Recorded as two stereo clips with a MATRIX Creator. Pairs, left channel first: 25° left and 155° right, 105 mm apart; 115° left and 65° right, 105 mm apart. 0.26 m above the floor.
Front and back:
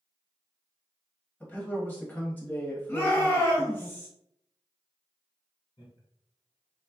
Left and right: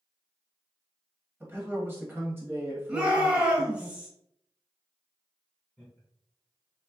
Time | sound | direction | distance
1.4 | a man speaking | 30° right | 1.2 m
2.9 | a shout | 10° right | 1.0 m
5.8 | laughter | 25° left | 1.7 m